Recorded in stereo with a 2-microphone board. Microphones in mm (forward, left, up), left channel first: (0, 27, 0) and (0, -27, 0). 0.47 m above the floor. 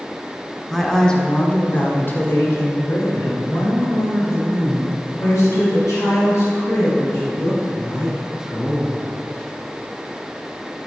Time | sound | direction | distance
0.7 | a woman speaking | 5° left (ahead or behind) | 1.0 m